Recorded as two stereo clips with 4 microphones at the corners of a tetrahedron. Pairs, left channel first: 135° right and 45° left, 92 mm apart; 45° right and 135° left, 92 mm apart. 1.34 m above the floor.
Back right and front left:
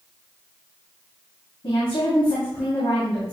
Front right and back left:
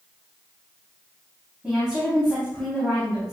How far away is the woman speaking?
About 3 m.